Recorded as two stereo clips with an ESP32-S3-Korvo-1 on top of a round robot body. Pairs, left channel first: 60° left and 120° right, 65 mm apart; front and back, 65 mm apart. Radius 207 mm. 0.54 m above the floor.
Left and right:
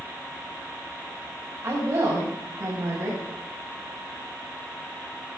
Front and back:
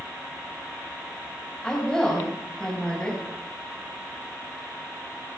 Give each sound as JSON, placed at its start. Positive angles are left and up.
{"t": 1.6, "sound": "a woman speaking", "azimuth_deg": -75, "distance_m": 4.5}